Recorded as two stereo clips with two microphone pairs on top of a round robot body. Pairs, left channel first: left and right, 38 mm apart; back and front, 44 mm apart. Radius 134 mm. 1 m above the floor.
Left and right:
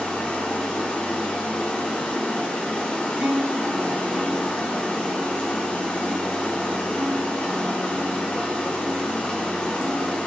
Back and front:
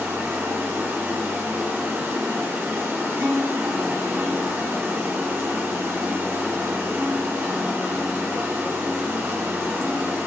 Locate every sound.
0.0 s running water: 30° left, 2.5 m
3.1 s a guitar: 35° right, 4.5 m